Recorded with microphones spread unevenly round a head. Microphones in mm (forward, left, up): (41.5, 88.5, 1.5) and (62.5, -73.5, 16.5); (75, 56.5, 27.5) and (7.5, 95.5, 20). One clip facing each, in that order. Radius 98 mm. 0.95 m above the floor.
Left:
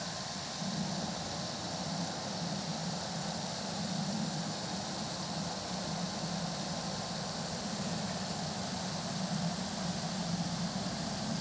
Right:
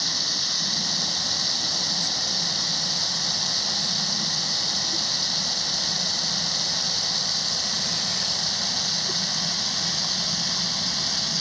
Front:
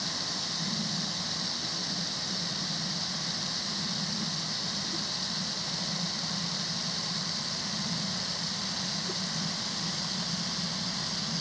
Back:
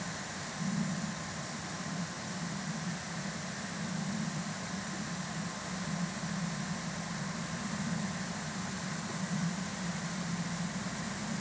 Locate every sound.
0.0 s running water: 80° right